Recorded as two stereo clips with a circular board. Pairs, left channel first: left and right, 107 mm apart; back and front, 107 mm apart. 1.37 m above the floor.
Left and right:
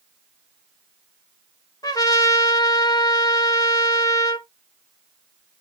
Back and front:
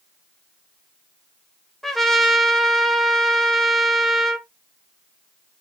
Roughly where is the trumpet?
Left.